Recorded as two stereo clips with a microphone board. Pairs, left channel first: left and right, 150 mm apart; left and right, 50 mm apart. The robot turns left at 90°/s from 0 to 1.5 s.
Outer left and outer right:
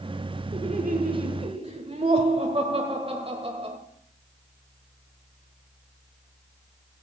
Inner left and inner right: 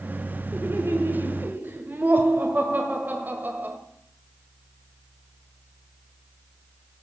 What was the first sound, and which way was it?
Laughter, 45° right.